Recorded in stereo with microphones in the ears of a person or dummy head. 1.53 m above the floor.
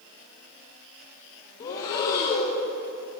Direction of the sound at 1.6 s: 20° left (ahead or behind).